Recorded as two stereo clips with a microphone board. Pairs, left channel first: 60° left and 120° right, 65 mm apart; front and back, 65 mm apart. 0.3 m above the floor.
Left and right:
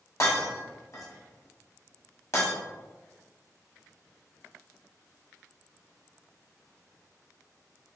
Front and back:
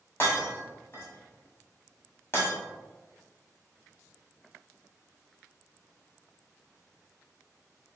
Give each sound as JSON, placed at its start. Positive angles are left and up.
{"t": 0.2, "sound": "breaking glass", "azimuth_deg": 40, "distance_m": 1.3}